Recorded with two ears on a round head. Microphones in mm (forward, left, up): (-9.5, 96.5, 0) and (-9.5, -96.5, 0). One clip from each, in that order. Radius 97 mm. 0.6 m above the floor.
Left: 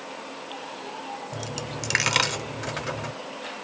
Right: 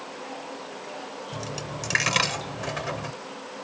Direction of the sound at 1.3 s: 15° left (ahead or behind).